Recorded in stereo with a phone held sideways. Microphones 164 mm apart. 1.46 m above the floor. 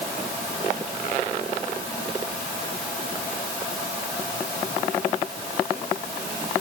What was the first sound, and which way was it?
Only background noise.